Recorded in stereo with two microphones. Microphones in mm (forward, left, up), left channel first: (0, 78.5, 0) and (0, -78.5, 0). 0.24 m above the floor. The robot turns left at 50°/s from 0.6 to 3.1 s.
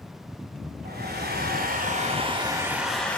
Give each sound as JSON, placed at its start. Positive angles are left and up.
{"t": 0.8, "sound": "a hair dryer", "azimuth_deg": -75, "distance_m": 4.0}